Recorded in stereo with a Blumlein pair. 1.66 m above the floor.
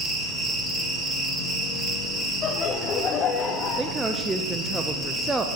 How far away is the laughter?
About 0.8 m.